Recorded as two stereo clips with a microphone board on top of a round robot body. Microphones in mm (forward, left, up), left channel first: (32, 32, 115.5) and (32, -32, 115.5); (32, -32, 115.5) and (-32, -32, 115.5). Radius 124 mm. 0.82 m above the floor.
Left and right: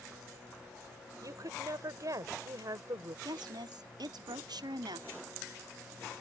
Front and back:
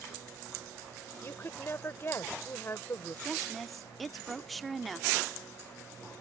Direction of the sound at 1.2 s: 55° right.